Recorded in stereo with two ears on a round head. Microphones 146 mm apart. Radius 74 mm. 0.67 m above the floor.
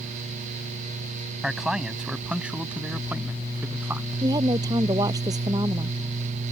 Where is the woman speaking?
20° right (ahead or behind).